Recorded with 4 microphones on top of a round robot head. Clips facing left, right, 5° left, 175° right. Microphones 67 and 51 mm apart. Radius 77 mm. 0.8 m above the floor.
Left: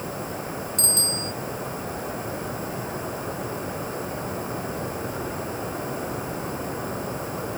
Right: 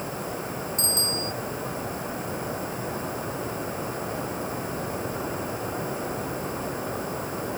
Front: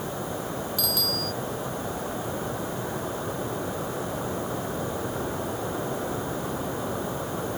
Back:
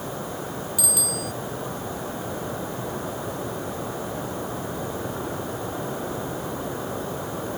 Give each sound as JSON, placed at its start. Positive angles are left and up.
{"t": 0.8, "sound": "a bicycle bell", "azimuth_deg": 110}